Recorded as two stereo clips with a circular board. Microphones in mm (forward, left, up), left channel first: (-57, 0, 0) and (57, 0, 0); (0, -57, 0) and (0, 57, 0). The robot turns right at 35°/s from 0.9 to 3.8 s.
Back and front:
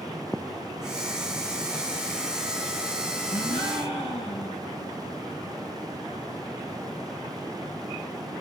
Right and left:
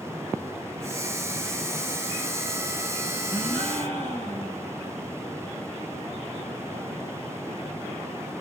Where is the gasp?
170° right, 4.5 m; by 4.6 s 155° right, 4.5 m.